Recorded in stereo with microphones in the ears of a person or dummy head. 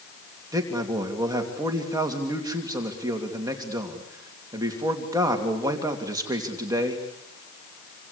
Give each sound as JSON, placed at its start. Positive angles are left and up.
{"t": 0.5, "sound": "a man speaking", "side_deg": -20, "distance_m": 3.0}